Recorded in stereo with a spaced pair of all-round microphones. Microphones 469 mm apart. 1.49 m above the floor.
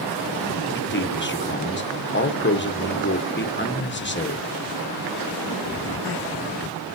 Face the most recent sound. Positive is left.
turn(degrees=25)  # may be behind; listen again after turning